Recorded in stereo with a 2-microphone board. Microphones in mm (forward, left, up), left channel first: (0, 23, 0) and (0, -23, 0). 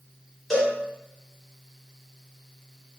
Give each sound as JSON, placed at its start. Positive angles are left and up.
{"t": 0.5, "sound": "a cowbell", "side_deg": 5, "distance_m": 1.0}